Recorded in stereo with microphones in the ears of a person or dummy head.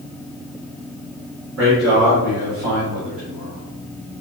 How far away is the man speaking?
About 1.7 m.